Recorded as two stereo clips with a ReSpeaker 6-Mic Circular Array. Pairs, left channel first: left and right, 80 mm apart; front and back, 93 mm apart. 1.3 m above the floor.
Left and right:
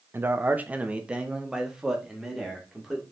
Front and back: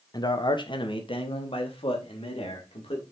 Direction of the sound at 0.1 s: 30° right.